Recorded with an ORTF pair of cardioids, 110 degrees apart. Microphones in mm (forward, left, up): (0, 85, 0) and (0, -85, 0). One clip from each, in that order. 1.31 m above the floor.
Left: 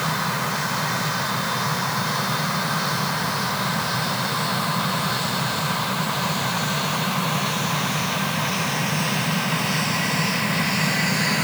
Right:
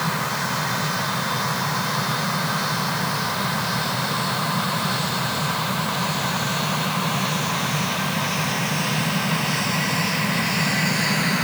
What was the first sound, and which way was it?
Only background noise.